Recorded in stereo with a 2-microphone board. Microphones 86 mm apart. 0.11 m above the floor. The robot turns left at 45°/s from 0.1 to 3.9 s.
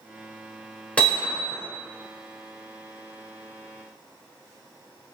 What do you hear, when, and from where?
1.0 s hammering: 15° left (ahead or behind), 1.1 m; by 1.6 s 10° left (ahead or behind), 1.1 m